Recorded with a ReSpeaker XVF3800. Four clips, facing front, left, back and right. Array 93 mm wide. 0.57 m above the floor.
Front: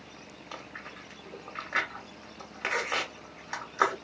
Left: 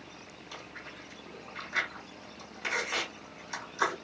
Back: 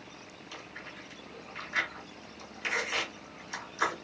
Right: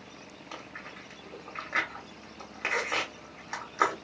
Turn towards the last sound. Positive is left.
turn(degrees=-40)